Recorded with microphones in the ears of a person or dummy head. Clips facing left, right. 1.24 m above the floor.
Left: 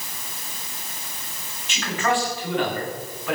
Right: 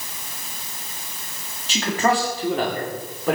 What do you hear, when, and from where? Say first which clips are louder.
1.7 s a man speaking: right 3 dB; 35° right (ahead or behind), 2.5 m; by 3.4 s 40° right (ahead or behind), 4 m